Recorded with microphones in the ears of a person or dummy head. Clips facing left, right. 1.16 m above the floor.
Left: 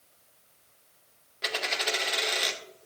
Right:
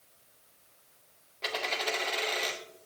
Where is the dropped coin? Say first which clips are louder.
Left 1 dB; 10° left (ahead or behind), 0.9 m.